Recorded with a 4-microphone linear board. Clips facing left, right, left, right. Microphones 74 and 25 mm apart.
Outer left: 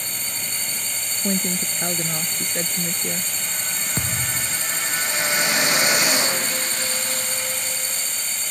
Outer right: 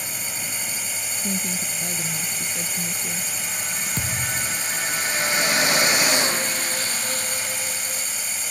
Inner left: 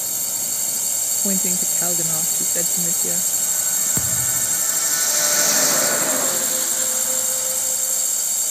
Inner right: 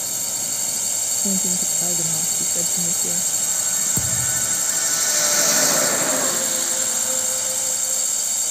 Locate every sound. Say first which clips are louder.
0.0 s a drone: outer right 1 dB, even; 5° right (ahead or behind)
1.2 s a woman speaking: outer left 5 dB, inner left 1 dB; 55° left (ahead or behind)
4.0 s a thud: even, even; 30° left (ahead or behind)